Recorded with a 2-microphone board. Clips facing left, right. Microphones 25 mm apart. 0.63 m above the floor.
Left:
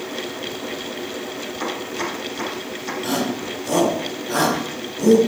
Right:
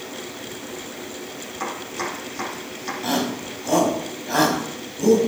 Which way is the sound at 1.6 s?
5° right (ahead or behind).